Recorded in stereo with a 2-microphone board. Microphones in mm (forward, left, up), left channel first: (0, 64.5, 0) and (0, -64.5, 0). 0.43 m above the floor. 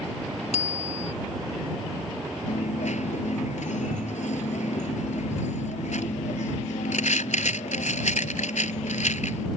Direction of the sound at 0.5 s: 60° left (ahead or behind).